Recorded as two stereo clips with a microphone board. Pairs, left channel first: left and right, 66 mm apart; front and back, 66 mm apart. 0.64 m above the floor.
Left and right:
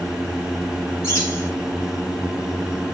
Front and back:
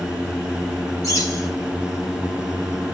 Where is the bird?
35° left, 9.5 m.